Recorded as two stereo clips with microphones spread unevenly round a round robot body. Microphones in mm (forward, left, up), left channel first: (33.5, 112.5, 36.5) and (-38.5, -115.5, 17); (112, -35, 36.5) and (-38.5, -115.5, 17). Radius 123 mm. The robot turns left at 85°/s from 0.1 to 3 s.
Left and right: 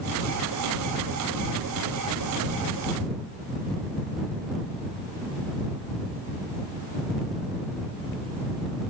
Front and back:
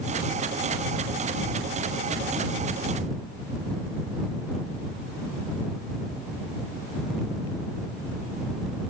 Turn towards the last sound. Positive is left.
No sound to turn to.